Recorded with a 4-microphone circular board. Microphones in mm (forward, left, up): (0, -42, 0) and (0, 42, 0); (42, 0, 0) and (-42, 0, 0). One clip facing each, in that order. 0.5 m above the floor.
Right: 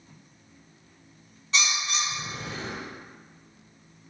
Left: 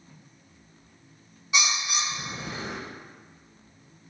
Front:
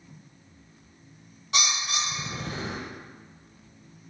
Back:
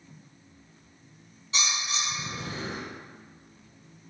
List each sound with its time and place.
1.5 s a bird: 10° left, 0.8 m